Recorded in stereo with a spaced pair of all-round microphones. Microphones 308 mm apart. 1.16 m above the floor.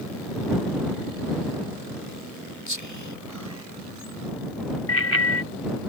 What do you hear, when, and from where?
2.7 s whispering: 75° left (ahead or behind)
4.9 s a bicycle bell: 50° left (ahead or behind)